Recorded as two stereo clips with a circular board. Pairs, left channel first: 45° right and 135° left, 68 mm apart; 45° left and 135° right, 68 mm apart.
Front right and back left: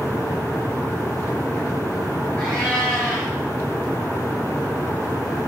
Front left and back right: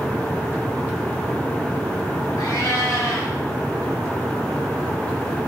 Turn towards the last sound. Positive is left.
turn(degrees=30)